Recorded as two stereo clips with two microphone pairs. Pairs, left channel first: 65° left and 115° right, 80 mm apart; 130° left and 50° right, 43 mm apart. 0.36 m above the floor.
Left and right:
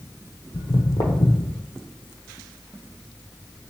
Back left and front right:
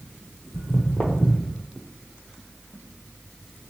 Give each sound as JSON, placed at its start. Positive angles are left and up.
{"t": 0.5, "sound": "footsteps", "azimuth_deg": 90, "distance_m": 0.7}